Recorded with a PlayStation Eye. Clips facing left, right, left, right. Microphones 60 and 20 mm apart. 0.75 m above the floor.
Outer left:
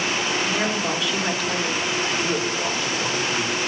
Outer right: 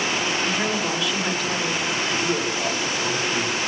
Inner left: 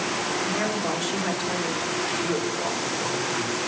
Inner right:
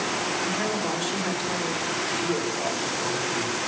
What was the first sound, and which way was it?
A woman speaking, centre (ahead or behind).